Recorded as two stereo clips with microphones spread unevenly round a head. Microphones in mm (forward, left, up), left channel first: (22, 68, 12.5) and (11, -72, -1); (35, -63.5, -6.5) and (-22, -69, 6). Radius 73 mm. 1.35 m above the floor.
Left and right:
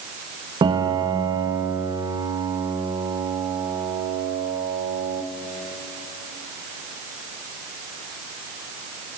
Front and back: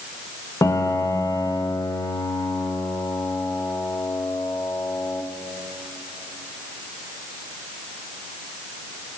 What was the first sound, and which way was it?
A piano, 35° right.